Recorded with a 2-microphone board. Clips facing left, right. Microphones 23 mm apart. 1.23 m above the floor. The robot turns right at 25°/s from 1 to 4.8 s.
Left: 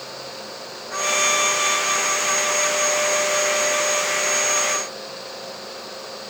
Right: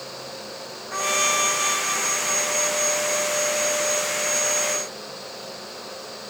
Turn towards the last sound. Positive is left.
turn(degrees=90)